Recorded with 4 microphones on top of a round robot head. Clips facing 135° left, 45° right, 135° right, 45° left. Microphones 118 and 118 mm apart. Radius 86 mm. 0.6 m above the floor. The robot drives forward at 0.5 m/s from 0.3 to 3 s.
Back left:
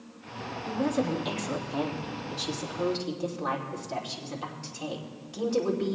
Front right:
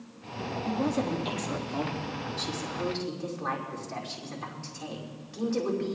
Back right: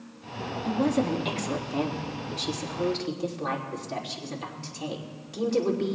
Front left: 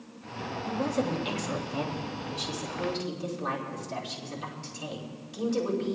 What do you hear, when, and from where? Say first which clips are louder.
0.7 s a woman speaking: back left 1 dB, back right 4 dB; 125° right, 1.6 m; by 6.0 s 155° right, 2.5 m